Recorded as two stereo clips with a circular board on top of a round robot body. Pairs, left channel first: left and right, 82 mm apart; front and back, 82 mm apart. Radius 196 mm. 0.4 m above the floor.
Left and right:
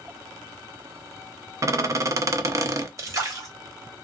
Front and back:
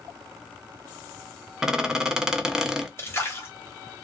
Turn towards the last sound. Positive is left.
turn(degrees=-50)